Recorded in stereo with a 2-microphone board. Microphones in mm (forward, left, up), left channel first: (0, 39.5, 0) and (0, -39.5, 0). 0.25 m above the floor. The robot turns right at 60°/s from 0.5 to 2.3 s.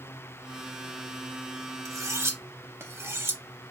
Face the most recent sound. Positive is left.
turn(degrees=-30)  # may be behind; listen again after turning